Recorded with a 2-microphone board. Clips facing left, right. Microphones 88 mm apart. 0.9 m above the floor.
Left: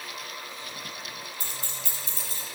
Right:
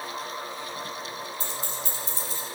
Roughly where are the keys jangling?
Left.